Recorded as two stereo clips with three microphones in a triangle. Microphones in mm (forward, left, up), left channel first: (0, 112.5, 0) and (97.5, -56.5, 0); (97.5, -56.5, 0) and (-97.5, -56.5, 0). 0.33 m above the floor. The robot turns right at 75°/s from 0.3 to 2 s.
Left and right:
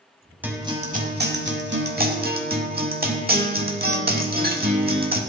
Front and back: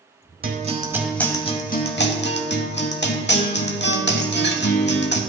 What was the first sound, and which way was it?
A guitar, 140° right.